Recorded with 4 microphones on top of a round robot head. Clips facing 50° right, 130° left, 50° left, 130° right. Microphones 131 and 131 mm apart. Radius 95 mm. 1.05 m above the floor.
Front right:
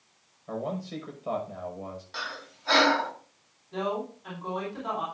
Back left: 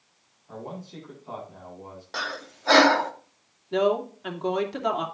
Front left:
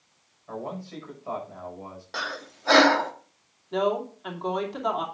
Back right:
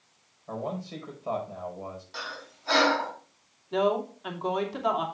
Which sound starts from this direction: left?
Breathing, at 2.1 s.